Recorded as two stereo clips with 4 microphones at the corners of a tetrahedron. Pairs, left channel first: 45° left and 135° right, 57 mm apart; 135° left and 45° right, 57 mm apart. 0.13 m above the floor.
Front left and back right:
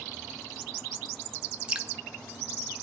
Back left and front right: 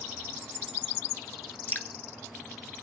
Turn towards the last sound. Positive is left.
turn(degrees=160)